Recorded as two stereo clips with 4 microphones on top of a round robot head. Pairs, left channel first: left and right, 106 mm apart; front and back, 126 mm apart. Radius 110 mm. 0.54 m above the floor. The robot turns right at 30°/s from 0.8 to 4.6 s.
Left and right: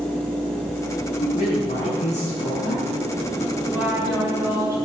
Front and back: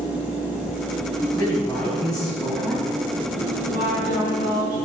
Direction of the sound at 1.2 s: 55° left.